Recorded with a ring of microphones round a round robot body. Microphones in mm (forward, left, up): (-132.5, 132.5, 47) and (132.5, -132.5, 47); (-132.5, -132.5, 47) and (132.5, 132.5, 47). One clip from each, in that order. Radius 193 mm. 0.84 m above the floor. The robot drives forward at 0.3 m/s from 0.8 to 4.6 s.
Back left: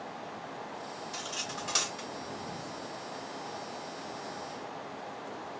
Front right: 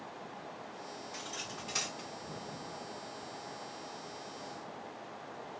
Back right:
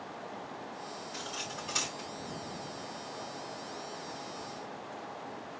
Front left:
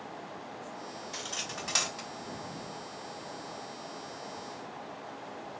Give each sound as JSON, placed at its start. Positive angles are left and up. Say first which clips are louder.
{"t": 1.1, "sound": "cutlery clinking", "louder": "back left 5 dB, front left 3 dB", "azimuth_deg": 85, "distance_m": 4.5}